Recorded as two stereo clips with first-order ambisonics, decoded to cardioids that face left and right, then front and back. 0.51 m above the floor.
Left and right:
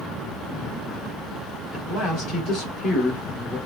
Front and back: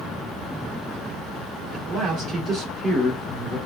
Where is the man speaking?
105° left, 1.3 m.